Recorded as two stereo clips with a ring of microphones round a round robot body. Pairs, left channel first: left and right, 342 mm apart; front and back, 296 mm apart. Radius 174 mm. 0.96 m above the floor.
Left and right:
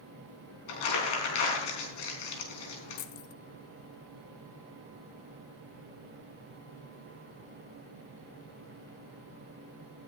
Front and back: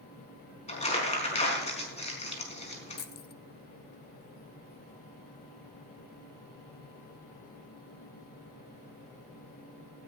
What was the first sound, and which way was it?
Crumpling, 70° left.